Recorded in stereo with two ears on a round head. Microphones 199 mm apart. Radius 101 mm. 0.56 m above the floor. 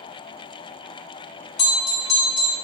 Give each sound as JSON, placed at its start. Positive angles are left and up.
{"t": 1.6, "sound": "a bell", "side_deg": 30, "distance_m": 1.8}